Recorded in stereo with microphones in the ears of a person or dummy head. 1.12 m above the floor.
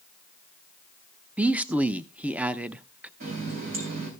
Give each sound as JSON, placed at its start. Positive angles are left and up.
{"t": 1.4, "sound": "a man speaking", "side_deg": -5, "distance_m": 0.5}
{"t": 3.2, "sound": "a running tap", "side_deg": -50, "distance_m": 4.0}